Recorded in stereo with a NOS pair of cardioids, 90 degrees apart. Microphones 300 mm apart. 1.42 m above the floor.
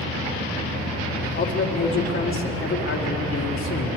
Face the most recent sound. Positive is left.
turn(degrees=45)